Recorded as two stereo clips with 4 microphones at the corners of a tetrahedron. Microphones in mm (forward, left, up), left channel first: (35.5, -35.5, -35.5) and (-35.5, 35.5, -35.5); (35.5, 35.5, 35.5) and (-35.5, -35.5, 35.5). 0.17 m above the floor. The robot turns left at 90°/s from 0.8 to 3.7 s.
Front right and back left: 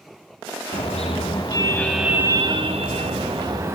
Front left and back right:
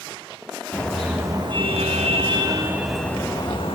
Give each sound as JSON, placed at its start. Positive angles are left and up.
{"t": 0.7, "sound": "a car horn", "azimuth_deg": -30, "distance_m": 8.0}